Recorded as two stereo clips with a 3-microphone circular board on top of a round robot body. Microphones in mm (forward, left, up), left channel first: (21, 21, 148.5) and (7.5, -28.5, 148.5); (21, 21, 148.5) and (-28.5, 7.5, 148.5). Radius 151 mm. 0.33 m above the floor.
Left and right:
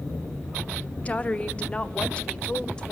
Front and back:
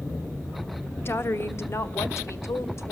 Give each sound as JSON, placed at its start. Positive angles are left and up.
{"t": 1.1, "sound": "a woman speaking", "azimuth_deg": 25, "distance_m": 1.3}